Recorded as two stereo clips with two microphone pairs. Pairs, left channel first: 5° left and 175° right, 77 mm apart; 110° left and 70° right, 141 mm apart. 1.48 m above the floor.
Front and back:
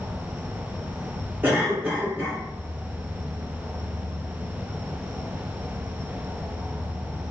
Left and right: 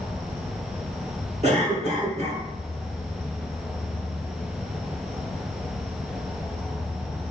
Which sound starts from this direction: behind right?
An insect, at 0.0 s.